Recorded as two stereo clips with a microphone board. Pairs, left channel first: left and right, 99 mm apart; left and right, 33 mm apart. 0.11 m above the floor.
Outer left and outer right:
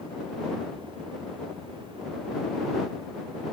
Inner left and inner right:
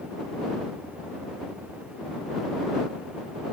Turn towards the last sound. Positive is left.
No sound to turn to.